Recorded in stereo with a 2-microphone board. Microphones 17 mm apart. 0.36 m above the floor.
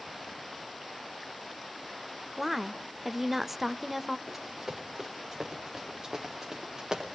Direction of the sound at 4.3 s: 5° right (ahead or behind).